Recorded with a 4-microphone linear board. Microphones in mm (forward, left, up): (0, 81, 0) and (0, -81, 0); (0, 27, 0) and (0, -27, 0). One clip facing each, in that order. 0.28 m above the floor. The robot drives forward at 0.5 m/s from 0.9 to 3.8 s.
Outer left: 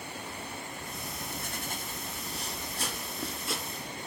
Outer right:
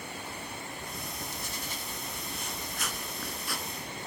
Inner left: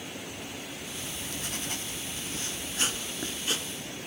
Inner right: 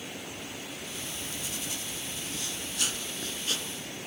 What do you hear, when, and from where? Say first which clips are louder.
1.0 s writing: outer left 1 dB, inner left 1 dB; 65° left (ahead or behind), 0.7 m; by 3.7 s 25° left (ahead or behind), 1.6 m